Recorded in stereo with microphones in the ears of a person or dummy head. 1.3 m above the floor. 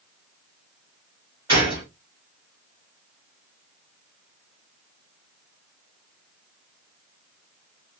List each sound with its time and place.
1.5 s a gunshot: 25° right (ahead or behind), 1.9 m